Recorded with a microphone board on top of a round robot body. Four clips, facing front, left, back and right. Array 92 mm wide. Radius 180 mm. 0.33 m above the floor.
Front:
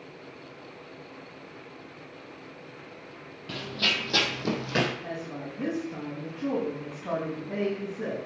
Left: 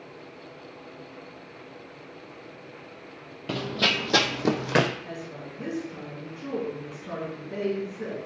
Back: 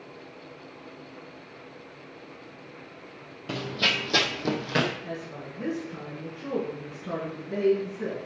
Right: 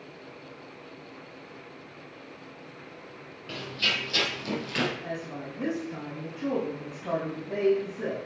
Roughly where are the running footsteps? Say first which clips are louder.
Left 5 dB, back 2 dB; left.